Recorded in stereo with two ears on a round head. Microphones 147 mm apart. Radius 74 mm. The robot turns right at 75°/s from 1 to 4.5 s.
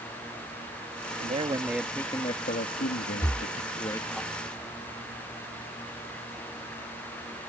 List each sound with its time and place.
1.2 s a man speaking: 50° right; by 4.2 s straight behind
3.2 s breathing: 20° left (ahead or behind); by 3.5 s 5° right (ahead or behind)